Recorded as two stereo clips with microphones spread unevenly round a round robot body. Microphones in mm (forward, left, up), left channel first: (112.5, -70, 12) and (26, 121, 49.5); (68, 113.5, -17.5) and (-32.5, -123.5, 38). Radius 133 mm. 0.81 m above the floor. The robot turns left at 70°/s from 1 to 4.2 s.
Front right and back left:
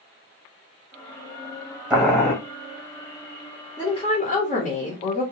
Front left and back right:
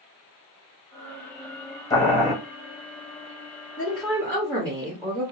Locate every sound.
1.9 s boiling: 20° left, 1.1 m; by 2.3 s 10° right, 1.1 m
3.8 s a woman speaking: straight ahead, 1.2 m; by 5.2 s 30° right, 1.2 m